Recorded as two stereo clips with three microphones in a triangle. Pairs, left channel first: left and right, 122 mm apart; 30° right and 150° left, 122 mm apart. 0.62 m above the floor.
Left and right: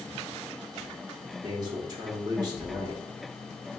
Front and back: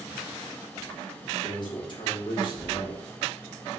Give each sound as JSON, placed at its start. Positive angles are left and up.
{"t": 1.4, "sound": "a man speaking", "azimuth_deg": -50, "distance_m": 1.1}